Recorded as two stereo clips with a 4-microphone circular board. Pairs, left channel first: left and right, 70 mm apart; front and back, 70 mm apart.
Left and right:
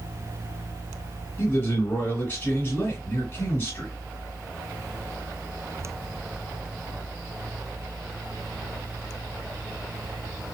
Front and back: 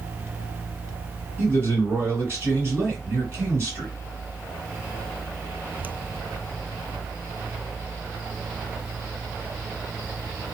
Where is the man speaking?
140° left, 2 m.